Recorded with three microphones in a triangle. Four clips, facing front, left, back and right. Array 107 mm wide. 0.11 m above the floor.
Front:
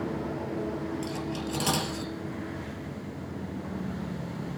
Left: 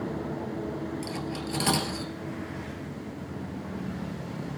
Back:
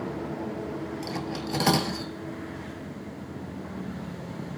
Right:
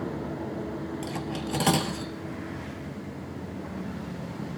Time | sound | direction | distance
1.0 | cutlery clinking | 145° right | 1.3 m